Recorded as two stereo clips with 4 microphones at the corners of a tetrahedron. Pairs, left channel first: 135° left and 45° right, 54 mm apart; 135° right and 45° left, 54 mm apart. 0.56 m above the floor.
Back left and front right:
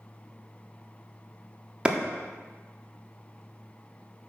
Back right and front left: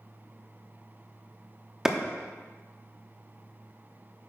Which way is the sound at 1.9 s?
20° right.